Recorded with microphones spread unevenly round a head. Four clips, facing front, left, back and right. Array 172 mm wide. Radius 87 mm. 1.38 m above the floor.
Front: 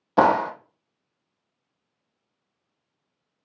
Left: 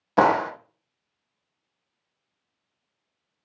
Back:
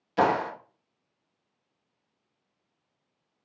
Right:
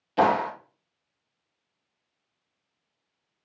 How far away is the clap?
About 0.8 m.